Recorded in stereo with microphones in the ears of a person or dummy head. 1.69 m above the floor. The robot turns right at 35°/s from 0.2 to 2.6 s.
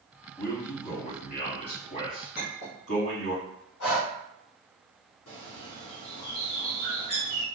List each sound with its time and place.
0.4 s a man speaking: 5° left (ahead or behind), 1.8 m; by 3.4 s 80° left, 1.8 m
2.4 s a clink: 60° left (ahead or behind), 1.4 m; by 2.8 s 55° left (ahead or behind), 1.4 m
3.8 s breathing: 80° left, 0.9 m
5.3 s a bird: 80° left, 1.0 m